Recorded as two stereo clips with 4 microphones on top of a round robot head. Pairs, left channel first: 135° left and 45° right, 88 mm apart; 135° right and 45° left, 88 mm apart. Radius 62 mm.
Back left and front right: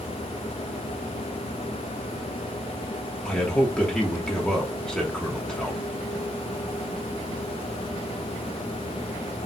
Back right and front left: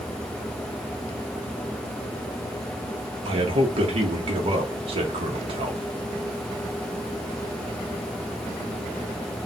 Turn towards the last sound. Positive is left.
turn(degrees=50)